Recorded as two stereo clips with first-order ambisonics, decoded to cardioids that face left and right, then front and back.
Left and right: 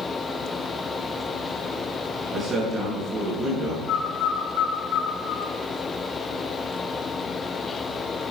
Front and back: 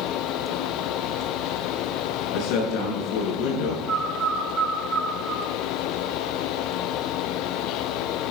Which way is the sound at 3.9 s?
125° left.